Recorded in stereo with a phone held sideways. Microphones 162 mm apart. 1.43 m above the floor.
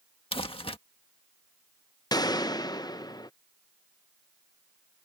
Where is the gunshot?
25° left (ahead or behind).